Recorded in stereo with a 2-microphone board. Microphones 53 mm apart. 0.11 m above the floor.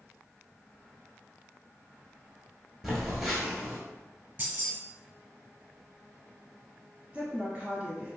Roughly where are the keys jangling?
Right.